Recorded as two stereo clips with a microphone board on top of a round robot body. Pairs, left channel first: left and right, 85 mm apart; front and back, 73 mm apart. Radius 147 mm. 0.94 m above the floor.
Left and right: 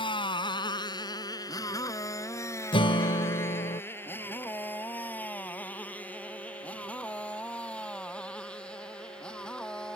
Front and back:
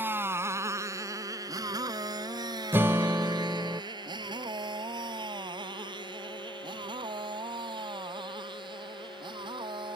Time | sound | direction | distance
0.0 | a motorcycle | 115° left | ?
2.7 | a guitar | 115° left | ?